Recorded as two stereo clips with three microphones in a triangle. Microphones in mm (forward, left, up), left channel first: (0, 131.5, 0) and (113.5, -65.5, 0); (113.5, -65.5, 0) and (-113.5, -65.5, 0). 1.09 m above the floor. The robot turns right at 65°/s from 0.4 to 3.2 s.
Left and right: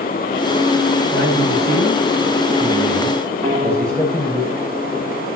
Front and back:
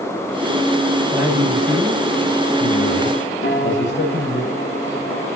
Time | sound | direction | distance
1.1 | a man speaking | 100° right | 5 m
3.4 | a piano | 10° right | 3.5 m